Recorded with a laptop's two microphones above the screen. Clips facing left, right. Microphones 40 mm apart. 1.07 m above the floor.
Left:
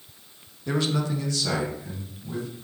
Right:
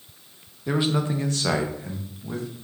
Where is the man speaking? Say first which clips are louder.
Right 2 dB; 10° right (ahead or behind), 0.5 m; by 2.5 s 60° right (ahead or behind), 1.2 m.